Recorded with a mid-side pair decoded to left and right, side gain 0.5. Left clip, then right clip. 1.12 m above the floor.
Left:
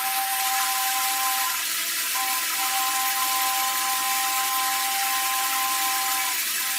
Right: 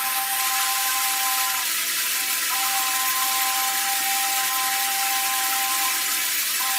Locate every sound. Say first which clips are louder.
0.0 s running water: even; 30° right, 1.8 m